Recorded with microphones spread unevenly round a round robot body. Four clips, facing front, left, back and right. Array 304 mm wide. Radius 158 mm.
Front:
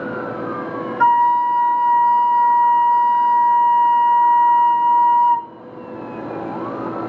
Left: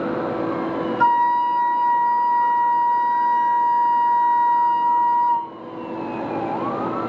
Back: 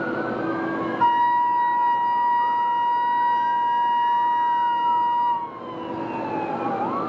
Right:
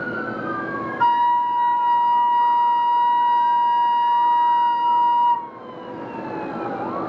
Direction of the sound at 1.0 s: 10° left.